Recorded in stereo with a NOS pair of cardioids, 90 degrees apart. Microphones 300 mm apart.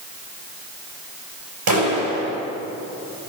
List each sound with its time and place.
1.7 s a clap: 65° right, 7.5 m